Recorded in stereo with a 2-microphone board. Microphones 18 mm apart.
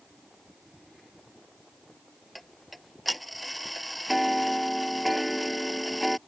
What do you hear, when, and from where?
2.4 s ticking: centre (ahead or behind)